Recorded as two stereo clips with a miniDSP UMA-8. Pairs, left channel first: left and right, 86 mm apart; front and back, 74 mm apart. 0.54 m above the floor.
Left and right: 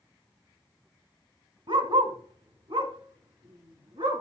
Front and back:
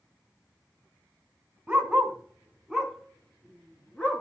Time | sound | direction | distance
1.7 | a dog barking | 105° right | 2.5 m